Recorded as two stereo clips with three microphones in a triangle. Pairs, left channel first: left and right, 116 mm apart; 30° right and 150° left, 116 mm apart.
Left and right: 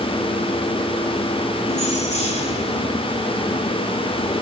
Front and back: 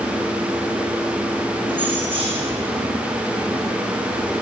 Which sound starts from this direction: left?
Keys jangling, at 1.7 s.